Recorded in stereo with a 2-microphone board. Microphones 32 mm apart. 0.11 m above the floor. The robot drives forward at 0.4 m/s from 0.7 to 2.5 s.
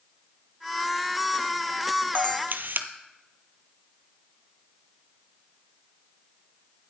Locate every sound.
2.1 s a camera shutter: 65° right (ahead or behind), 0.6 m; by 2.9 s 70° right (ahead or behind), 0.6 m